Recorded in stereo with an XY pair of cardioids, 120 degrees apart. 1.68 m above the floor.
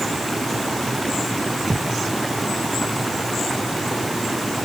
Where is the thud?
15° right.